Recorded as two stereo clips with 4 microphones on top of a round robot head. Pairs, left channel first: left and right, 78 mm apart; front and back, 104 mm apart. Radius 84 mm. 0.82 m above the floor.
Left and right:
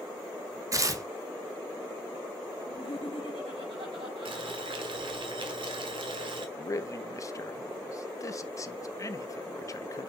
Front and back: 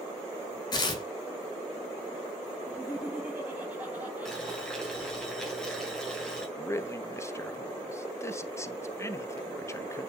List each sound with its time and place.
0.7 s tearing paper: 45° right, 1.7 m
2.6 s laughter: 100° right, 6 m
4.2 s boiling: 85° right, 2 m
6.6 s a man speaking: 55° left, 1.2 m